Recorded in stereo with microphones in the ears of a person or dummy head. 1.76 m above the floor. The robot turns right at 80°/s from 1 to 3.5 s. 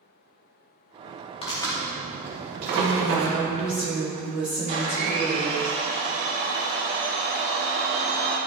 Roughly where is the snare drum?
I don't hear a snare drum.